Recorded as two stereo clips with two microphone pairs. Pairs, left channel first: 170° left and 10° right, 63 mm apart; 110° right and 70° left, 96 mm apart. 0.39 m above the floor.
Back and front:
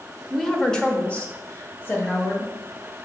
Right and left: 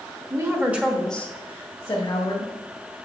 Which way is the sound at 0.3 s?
85° left.